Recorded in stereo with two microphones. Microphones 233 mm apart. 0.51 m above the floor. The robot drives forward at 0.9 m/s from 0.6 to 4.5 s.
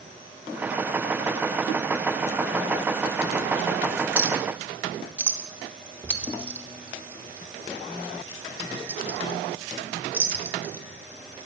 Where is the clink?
10° right (ahead or behind), 0.6 m; by 11.5 s 5° right (ahead or behind), 0.8 m.